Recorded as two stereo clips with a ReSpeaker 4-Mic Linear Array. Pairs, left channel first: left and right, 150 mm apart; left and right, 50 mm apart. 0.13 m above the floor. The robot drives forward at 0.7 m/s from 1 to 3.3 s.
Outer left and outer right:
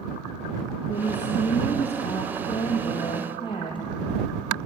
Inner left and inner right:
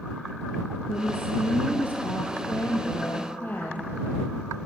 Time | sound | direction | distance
0.9 | a woman speaking | 45° left (ahead or behind) | 3 m